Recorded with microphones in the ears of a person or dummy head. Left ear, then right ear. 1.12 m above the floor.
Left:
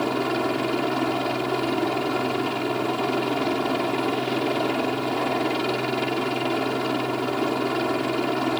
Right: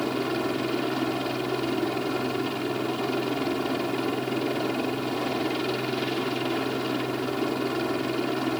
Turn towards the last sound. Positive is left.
turn(degrees=15)  # may be behind; listen again after turning